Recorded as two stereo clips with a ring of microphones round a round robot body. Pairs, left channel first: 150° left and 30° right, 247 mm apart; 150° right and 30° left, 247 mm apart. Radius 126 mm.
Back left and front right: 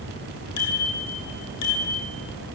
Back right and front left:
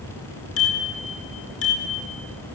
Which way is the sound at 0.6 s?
175° left.